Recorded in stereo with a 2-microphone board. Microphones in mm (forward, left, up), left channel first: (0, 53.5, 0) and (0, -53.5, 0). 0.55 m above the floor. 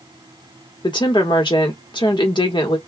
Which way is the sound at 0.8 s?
45° left (ahead or behind).